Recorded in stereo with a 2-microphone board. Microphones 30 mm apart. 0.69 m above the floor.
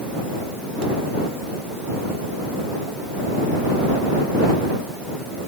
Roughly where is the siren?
No siren in this recording.